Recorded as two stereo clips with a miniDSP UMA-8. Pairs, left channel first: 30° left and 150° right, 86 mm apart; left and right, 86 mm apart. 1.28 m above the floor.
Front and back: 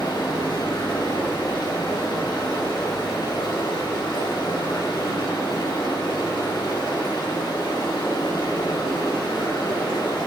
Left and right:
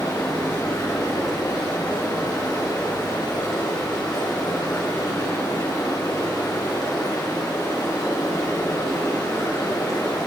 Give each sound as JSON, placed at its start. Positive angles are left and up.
{"t": 0.0, "sound": "running water", "azimuth_deg": 55, "distance_m": 4.5}